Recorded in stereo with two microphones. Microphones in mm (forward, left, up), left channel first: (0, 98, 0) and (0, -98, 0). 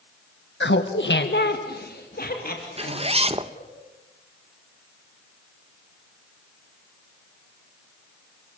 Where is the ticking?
No ticking in this recording.